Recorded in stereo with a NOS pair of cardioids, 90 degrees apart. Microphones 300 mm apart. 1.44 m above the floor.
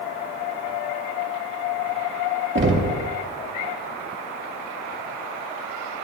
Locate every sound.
2.5 s knocking: 40° right, 2.5 m